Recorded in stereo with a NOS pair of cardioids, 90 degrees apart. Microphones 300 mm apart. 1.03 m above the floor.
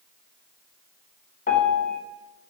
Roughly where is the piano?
Ahead left.